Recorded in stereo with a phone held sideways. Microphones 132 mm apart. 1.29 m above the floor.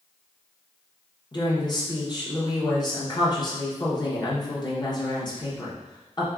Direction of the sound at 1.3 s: 30° left (ahead or behind).